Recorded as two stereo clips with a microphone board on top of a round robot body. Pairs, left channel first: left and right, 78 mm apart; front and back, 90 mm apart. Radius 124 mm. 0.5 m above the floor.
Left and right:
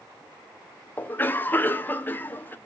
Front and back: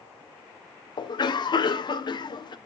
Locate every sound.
1.0 s a cough: 25° left, 2 m